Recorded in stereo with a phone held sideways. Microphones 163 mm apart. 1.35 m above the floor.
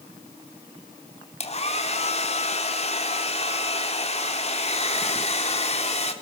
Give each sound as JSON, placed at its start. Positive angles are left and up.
{"t": 1.4, "sound": "a hair dryer", "side_deg": 40, "distance_m": 3.0}